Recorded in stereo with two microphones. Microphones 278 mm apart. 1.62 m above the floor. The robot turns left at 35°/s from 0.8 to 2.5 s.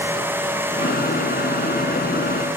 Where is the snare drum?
No snare drum in this recording.